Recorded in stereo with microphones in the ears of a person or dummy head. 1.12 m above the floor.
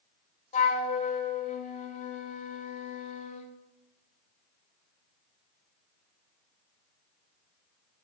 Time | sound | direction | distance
0.5 | a flute | 35° left (ahead or behind) | 0.5 m